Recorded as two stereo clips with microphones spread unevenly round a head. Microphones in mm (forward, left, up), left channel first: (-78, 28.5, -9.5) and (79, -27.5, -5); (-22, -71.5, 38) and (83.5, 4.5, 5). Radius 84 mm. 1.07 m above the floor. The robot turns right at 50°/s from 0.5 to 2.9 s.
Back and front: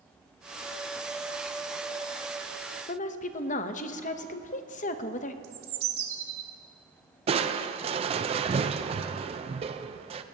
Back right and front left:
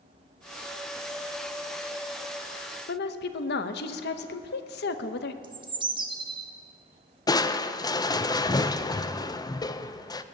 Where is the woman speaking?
150° right, 0.8 m.